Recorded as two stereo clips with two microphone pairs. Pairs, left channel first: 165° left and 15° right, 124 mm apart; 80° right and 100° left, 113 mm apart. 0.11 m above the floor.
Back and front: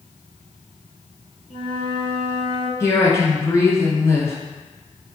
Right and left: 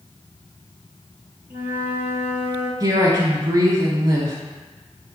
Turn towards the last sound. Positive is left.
turn(degrees=120)